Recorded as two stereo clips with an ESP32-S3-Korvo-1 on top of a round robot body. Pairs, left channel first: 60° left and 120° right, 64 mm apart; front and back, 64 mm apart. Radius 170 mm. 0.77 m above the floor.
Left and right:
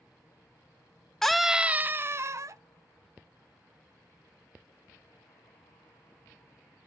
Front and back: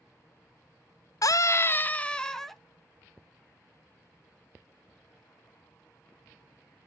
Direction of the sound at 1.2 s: 25° right.